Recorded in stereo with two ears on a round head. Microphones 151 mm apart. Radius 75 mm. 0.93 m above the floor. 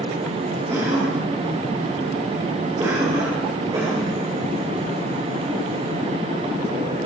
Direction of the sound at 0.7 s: 20° right (ahead or behind).